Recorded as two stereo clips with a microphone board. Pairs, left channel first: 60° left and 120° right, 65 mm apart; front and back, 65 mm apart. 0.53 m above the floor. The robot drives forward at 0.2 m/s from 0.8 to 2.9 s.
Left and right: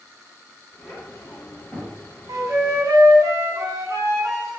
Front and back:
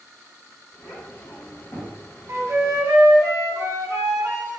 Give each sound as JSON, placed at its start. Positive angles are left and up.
{"t": 0.8, "sound": "a child speaking", "azimuth_deg": 5, "distance_m": 1.1}
{"t": 2.3, "sound": "a flute", "azimuth_deg": -140, "distance_m": 0.6}